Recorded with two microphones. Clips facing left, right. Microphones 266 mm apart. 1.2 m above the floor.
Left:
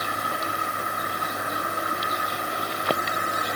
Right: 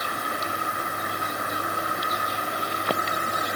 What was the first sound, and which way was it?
Only background noise.